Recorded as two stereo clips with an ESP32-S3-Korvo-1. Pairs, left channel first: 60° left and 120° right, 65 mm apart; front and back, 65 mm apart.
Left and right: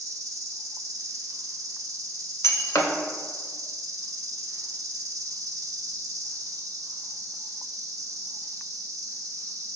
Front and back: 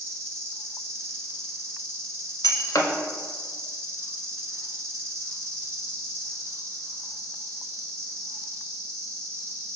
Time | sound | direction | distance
0.0 | an insect | 140° right | 1.1 m
2.4 | breaking glass | 20° left | 0.6 m